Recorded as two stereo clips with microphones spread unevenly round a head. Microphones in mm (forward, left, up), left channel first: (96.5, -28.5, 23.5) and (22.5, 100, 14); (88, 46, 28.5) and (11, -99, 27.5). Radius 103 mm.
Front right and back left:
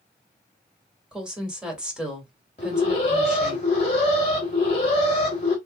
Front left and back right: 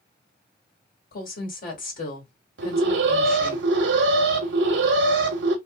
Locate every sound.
1.1 s a woman speaking: 40° left, 1.8 m
2.6 s an alarm: 120° right, 0.8 m